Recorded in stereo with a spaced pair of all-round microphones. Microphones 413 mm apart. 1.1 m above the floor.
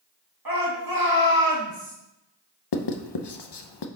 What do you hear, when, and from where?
0.5 s a shout: 55° right (ahead or behind), 1.8 m
2.7 s writing: 75° left (ahead or behind), 0.6 m